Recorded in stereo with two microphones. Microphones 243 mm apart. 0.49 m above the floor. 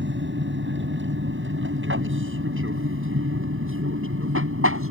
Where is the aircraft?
50° right (ahead or behind); by 4.9 s 65° right (ahead or behind).